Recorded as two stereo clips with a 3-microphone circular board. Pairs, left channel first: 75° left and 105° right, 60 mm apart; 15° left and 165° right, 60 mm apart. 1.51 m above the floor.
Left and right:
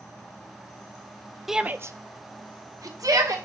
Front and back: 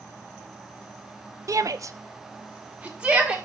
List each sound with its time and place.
1.5 s a shout: 170° left, 0.7 m; by 3.4 s 95° right, 2.5 m